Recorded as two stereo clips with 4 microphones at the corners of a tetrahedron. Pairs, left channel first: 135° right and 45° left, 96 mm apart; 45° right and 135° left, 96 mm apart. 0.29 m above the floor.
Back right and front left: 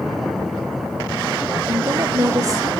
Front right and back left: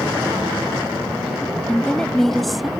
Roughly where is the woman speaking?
Ahead.